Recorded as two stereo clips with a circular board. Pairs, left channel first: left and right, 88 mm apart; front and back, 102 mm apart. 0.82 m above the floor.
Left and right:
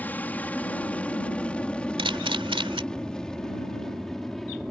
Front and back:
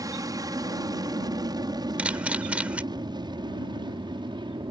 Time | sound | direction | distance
0.0 | an aircraft | 150° left | ?
2.0 | a camera shutter | 105° right | ?